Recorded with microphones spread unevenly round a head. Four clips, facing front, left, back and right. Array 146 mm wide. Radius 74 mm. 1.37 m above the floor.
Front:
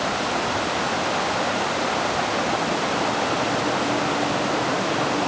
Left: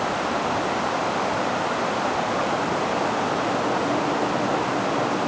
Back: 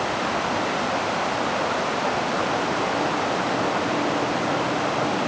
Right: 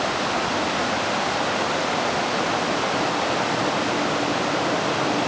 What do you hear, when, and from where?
Only background noise.